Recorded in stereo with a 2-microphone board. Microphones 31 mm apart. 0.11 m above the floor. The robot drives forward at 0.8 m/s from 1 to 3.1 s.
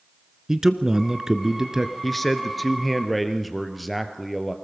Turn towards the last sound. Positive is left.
turn(degrees=0)  # may be behind; listen again after turning